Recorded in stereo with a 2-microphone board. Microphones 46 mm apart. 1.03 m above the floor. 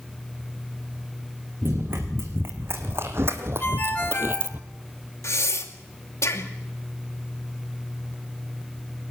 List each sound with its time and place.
1.6 s running footsteps: 50° right (ahead or behind), 4.5 m; by 4.6 s 40° right (ahead or behind), 1.3 m
3.6 s a ringtone: 30° left (ahead or behind), 5 m
5.2 s breathing: 75° left (ahead or behind), 2.5 m